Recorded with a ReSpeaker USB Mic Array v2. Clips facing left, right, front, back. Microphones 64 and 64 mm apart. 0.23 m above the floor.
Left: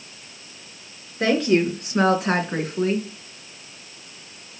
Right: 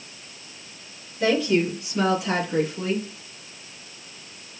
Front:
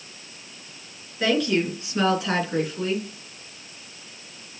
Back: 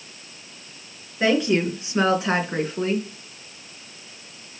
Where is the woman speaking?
110° left, 3.5 m; by 3.1 s 130° left, 3 m.